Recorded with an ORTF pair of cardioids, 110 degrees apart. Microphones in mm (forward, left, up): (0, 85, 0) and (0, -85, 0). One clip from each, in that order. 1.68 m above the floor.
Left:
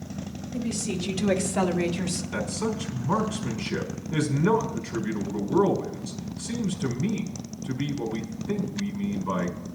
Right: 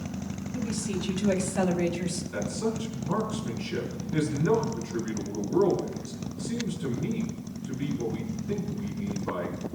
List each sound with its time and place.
0.5 s a woman speaking: 45° left, 3 m; by 2.2 s 55° left, 1.8 m
2.3 s a man speaking: 50° left, 5.5 m